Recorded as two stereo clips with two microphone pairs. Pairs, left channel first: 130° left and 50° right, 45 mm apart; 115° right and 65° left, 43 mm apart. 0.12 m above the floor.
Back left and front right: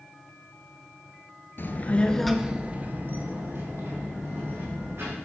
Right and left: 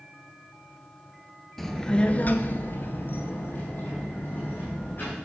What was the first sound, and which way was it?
A child speaking, 155° left.